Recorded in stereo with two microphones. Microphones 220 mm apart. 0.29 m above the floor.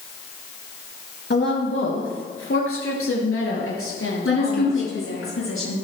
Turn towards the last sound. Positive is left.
turn(degrees=70)  # may be behind; listen again after turning